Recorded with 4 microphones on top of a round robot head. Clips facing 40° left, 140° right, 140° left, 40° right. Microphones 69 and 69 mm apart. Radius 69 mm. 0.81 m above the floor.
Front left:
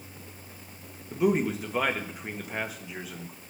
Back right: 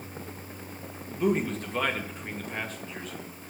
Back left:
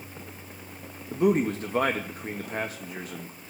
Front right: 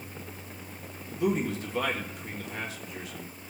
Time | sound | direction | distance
1.1 | a man speaking | 120° left | 1.2 m